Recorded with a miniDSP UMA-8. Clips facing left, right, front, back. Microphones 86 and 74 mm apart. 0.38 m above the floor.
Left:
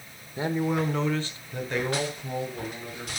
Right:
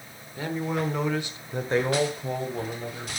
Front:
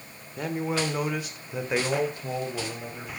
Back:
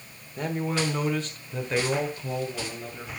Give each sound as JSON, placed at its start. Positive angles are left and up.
{"t": 0.4, "sound": "a man speaking", "azimuth_deg": 85, "distance_m": 1.3}